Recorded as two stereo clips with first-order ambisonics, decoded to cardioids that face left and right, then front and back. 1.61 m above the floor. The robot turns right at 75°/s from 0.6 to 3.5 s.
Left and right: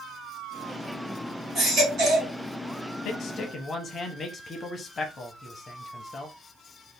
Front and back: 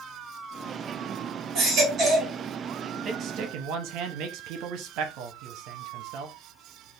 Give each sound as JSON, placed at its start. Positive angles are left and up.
{"t": 1.6, "sound": "a baby crying", "azimuth_deg": -165, "distance_m": 2.0}
{"t": 3.0, "sound": "a man speaking", "azimuth_deg": 120, "distance_m": 0.8}